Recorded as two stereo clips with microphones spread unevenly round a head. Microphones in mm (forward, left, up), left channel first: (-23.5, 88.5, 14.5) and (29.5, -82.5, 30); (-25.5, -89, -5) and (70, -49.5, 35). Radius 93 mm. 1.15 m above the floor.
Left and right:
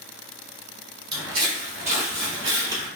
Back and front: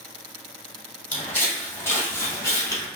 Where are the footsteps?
70° right, 1.7 m; by 2.9 s 90° right, 1.1 m.